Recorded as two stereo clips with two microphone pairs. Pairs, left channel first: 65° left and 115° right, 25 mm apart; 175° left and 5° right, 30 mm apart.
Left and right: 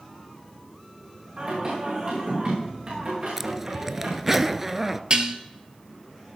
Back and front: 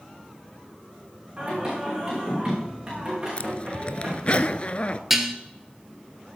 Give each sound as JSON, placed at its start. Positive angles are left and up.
{"t": 1.4, "sound": "singing", "azimuth_deg": -70, "distance_m": 7.0}
{"t": 3.4, "sound": "a zipper", "azimuth_deg": 180, "distance_m": 0.5}
{"t": 5.1, "sound": "dishes clattering", "azimuth_deg": -80, "distance_m": 1.3}